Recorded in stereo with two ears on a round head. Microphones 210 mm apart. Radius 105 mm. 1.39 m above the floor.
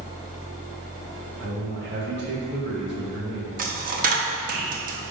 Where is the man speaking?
50° right (ahead or behind), 2.5 m.